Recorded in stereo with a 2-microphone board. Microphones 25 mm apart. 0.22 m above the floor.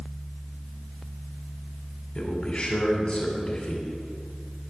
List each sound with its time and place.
2.1 s a man speaking: 40° left (ahead or behind), 2 m